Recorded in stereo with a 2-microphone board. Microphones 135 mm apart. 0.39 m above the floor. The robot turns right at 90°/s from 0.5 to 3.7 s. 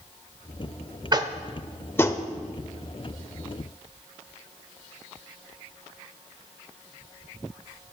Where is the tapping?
30° right (ahead or behind), 0.6 m; by 2.2 s 30° left (ahead or behind), 0.6 m.